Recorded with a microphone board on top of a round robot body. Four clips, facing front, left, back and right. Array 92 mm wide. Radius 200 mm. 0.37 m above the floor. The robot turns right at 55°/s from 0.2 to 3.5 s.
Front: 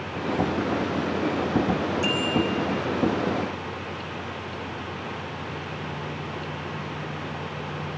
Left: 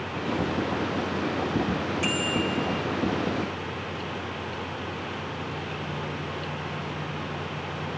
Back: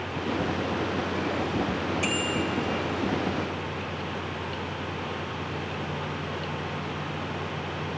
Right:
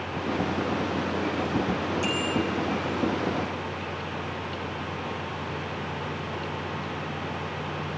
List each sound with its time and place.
2.0 s a bicycle bell: 135° left, 7 m; by 2.7 s 170° left, 7 m